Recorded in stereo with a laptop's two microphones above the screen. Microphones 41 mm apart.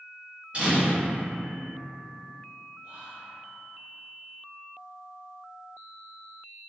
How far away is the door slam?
About 1.1 m.